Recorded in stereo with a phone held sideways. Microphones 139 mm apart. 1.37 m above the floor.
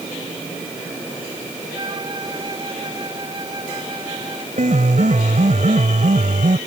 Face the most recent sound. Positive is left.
turn(degrees=-65)  # may be behind; listen again after turning